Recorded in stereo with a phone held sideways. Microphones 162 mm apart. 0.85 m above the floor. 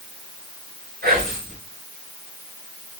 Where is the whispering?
70° right (ahead or behind), 2.5 m.